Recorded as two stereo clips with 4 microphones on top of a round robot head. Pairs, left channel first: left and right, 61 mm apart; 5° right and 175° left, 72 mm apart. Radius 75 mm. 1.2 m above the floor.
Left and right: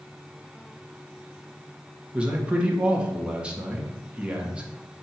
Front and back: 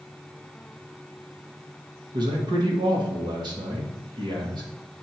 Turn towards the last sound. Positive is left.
turn(degrees=-165)